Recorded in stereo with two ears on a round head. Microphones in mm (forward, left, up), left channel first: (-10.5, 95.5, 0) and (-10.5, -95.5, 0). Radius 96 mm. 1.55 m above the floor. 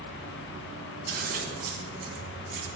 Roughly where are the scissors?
Right.